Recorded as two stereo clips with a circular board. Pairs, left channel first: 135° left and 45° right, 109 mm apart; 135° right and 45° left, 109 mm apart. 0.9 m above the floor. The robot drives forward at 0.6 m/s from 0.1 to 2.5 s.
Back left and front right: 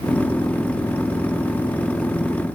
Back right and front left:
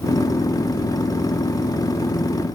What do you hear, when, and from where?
Only background noise.